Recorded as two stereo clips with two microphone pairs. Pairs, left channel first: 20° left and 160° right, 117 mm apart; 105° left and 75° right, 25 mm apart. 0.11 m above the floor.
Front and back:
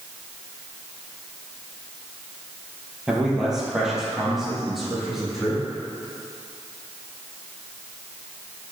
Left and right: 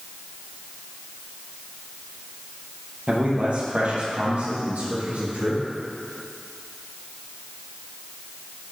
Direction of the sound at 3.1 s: 75° right.